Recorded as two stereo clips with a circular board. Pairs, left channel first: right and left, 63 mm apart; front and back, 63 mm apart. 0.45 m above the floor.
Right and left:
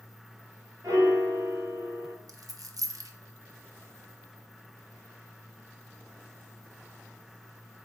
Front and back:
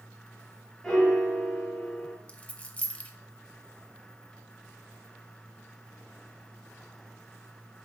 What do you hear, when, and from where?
0.8 s a piano: 85° left, 1.7 m
2.3 s a dropped coin: 70° left, 0.5 m